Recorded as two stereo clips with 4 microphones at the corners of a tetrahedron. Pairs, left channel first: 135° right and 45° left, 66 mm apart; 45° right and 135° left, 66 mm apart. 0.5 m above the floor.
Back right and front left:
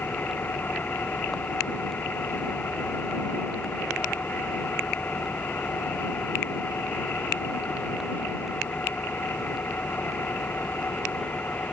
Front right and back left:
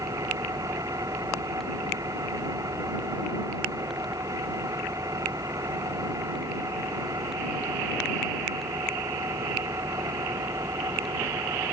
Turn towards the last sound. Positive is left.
turn(degrees=165)